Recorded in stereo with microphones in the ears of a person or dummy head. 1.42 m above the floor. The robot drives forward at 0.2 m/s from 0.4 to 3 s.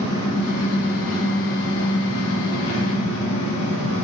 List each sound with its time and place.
0.0 s an engine running: 20° left (ahead or behind), 1.6 m; by 4.0 s 30° left (ahead or behind), 1.2 m